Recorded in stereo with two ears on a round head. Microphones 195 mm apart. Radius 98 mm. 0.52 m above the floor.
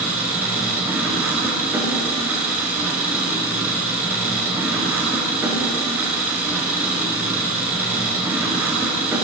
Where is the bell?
No bell in this recording.